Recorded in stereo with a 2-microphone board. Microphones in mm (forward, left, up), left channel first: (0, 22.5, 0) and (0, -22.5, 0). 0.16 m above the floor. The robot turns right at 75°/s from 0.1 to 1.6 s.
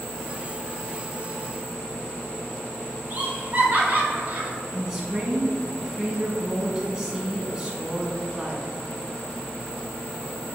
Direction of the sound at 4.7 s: 10° right (ahead or behind).